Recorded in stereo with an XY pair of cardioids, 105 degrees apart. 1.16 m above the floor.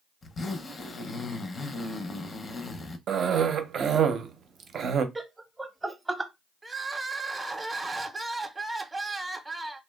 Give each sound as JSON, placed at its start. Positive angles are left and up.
{"t": 0.2, "sound": "a zipper", "azimuth_deg": 40, "distance_m": 0.5}
{"t": 3.1, "sound": "a cough", "azimuth_deg": -55, "distance_m": 0.6}
{"t": 5.2, "sound": "laughter", "azimuth_deg": -20, "distance_m": 0.7}
{"t": 6.6, "sound": "crying", "azimuth_deg": -15, "distance_m": 0.5}